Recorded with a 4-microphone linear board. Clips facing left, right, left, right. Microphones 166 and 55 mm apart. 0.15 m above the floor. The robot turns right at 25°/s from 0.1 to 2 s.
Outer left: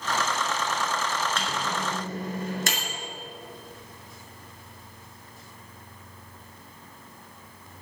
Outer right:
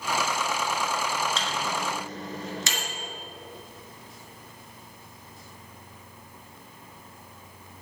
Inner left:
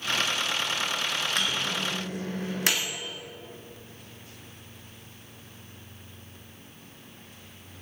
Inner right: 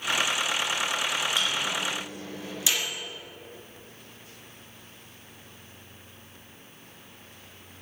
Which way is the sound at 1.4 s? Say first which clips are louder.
Even, inner right 1 dB; 55° left (ahead or behind).